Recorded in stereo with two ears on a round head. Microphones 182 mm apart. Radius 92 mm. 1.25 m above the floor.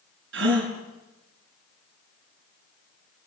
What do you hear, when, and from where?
0.3 s a gasp: 60° right (ahead or behind), 5.5 m